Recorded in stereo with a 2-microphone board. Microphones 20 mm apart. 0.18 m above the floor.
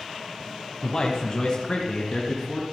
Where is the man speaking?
15° left (ahead or behind), 1.1 m; by 2.6 s 35° left (ahead or behind), 3 m.